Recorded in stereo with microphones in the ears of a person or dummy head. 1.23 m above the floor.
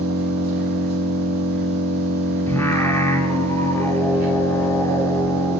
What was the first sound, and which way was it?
An engine running, 60° right (ahead or behind).